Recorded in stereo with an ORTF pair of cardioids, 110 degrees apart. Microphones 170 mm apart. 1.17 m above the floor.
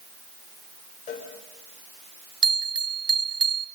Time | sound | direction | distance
1.1 | a cowbell | 50° left | 4.5 m
2.4 | a bell | 25° right | 0.5 m